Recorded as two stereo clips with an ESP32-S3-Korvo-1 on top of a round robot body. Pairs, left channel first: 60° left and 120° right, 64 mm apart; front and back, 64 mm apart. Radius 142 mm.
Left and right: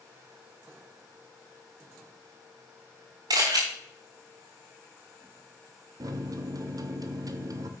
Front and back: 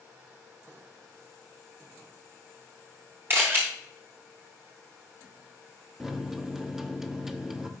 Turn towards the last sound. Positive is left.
turn(degrees=-95)